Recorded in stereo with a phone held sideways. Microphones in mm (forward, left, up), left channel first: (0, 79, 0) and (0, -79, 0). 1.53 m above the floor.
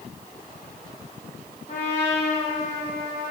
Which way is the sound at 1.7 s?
40° left (ahead or behind).